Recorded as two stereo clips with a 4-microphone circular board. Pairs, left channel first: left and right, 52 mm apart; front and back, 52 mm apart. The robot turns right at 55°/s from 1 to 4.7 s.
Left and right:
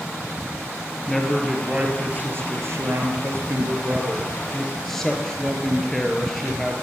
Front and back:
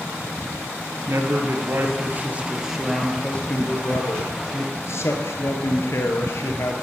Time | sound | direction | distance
1.1 | a man speaking | 170° left | 2 m